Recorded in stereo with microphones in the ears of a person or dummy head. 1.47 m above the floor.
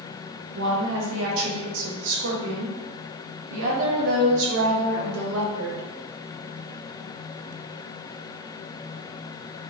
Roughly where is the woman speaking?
Right.